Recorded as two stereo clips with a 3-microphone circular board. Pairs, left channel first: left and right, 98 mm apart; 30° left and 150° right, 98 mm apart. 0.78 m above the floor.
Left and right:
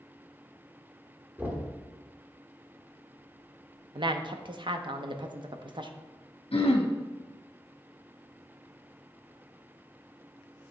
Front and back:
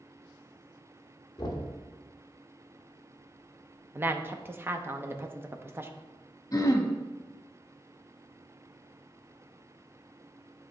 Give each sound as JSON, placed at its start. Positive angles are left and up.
{"t": 1.4, "sound": "knocking", "azimuth_deg": -20, "distance_m": 1.0}
{"t": 4.0, "sound": "a woman speaking", "azimuth_deg": -90, "distance_m": 0.6}
{"t": 6.5, "sound": "throat clearing", "azimuth_deg": 80, "distance_m": 0.7}